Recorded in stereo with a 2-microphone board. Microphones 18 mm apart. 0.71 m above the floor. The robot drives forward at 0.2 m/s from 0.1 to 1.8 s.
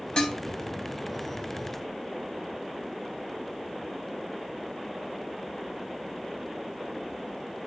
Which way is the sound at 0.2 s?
60° left (ahead or behind).